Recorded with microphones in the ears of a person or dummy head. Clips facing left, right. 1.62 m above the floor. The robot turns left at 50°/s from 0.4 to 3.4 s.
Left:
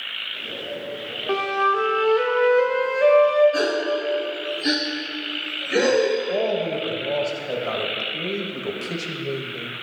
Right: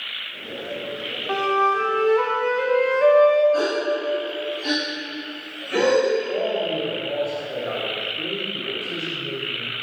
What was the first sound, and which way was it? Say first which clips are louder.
A flute: right 1 dB; 85° left.